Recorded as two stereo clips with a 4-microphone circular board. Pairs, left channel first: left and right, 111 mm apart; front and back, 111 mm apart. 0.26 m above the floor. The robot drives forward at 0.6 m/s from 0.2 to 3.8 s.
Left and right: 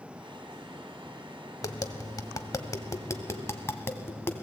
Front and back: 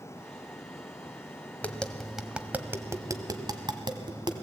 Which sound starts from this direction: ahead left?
Tapping, at 1.6 s.